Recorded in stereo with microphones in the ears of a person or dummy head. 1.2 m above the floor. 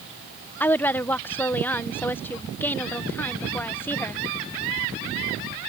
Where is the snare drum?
No snare drum in this recording.